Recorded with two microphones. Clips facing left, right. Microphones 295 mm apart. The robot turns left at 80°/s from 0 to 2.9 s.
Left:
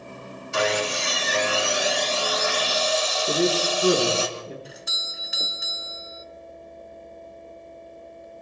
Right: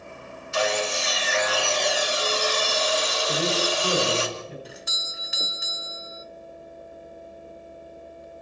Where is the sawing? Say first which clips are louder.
Left 1 dB; 110° left, 3 m; by 4.3 s 80° right, 3 m.